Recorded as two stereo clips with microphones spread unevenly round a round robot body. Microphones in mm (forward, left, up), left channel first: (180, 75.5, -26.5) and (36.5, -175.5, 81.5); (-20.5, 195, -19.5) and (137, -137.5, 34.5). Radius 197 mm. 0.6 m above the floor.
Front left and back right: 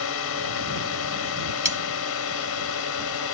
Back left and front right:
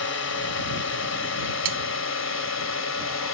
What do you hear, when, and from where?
0.0 s a drone: 65° left; by 3.3 s 70° left
1.6 s cutlery clinking: 40° right